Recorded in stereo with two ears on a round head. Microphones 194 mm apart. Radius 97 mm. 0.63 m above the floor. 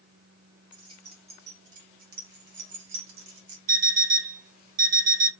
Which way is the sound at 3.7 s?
40° right (ahead or behind).